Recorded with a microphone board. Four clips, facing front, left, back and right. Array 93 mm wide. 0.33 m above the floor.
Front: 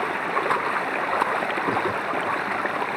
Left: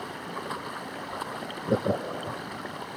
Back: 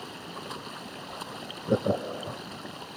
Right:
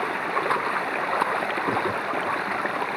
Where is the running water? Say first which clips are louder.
Right 10 dB, front 16 dB; 35° right.